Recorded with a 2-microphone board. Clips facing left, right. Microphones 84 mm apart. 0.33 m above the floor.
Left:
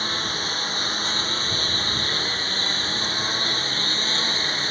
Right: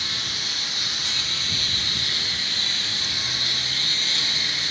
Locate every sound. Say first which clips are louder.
0.0 s a lawn mower: left 6 dB; 35° left (ahead or behind)